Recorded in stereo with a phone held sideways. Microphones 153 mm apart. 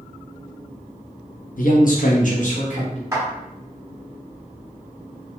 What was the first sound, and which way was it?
A man speaking, 65° left (ahead or behind).